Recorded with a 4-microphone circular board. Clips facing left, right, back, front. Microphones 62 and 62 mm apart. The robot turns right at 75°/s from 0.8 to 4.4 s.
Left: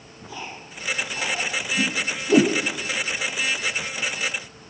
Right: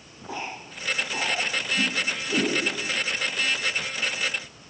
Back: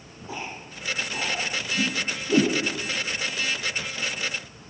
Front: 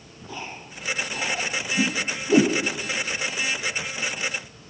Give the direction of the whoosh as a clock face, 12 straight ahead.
12 o'clock.